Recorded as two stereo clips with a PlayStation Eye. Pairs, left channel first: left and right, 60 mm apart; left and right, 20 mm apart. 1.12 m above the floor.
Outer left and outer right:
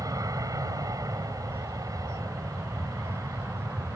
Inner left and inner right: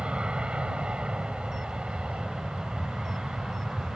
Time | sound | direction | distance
0.0 | an aircraft | 75° right (ahead or behind) | ?